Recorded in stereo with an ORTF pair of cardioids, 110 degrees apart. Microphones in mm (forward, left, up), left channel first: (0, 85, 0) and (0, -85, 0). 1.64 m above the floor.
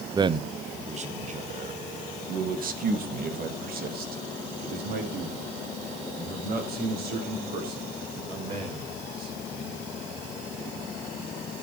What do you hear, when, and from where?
0.1 s a man speaking: 20° right, 0.8 m; by 9.8 s 60° right, 7 m